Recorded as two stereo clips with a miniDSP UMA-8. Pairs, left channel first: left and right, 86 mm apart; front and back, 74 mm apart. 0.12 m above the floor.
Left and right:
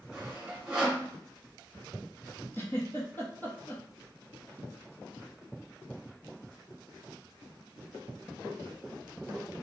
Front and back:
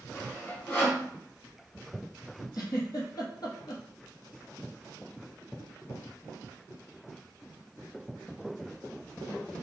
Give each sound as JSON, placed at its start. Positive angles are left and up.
{"t": 0.1, "sound": "sawing", "azimuth_deg": -20, "distance_m": 1.8}
{"t": 2.5, "sound": "a giggle", "azimuth_deg": 25, "distance_m": 1.1}